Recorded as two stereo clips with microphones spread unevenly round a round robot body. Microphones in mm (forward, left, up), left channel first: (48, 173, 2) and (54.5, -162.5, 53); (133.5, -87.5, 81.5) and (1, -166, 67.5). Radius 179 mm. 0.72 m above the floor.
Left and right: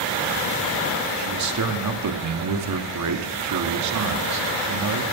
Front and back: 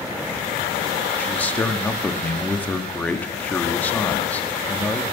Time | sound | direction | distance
1.2 | a man speaking | 50° right | 1.6 m